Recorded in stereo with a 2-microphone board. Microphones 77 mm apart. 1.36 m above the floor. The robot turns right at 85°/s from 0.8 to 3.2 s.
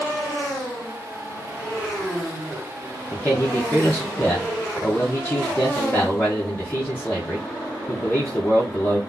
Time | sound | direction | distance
3.1 | a man speaking | 15° left (ahead or behind) | 1.2 m